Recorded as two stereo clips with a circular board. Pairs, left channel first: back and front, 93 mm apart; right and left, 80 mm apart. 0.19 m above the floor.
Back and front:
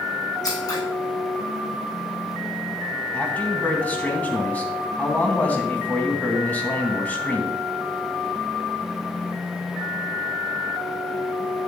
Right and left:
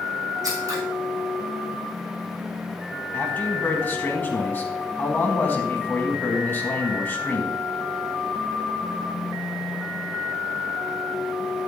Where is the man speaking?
125° right, 1.6 m.